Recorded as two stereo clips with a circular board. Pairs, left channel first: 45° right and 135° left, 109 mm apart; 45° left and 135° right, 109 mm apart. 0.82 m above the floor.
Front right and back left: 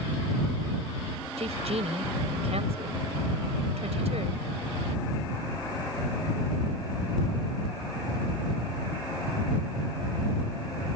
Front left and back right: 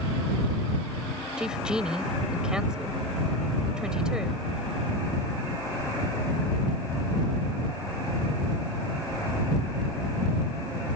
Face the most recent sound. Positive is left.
turn(degrees=140)